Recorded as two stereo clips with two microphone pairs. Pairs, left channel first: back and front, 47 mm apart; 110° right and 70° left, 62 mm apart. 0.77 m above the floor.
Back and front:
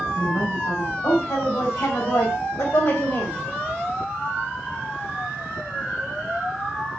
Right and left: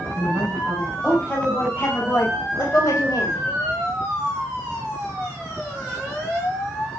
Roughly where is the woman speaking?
Behind.